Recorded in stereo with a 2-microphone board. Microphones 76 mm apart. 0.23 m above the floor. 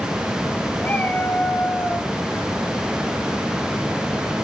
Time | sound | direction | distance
0.8 | a cat meowing | 25° left (ahead or behind) | 4 m